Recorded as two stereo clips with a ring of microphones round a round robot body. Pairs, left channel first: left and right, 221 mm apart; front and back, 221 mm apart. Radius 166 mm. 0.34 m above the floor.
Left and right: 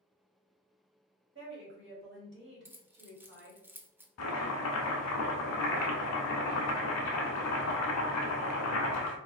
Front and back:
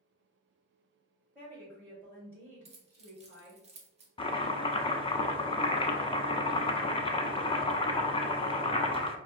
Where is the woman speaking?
100° right, 2.0 m.